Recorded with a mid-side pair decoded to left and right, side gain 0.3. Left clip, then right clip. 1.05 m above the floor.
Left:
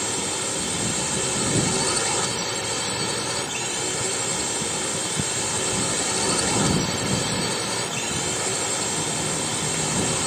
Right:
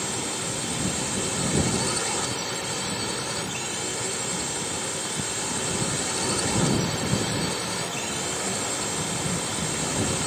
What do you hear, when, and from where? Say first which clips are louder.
0.0 s a drone: left 3 dB; 40° left